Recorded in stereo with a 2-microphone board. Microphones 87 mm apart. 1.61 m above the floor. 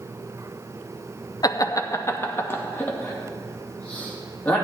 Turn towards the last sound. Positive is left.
turn(degrees=15)  # may be behind; listen again after turning